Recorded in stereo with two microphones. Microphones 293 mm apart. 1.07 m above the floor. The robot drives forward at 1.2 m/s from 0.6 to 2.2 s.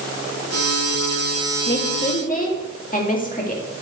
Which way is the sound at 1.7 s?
40° left (ahead or behind).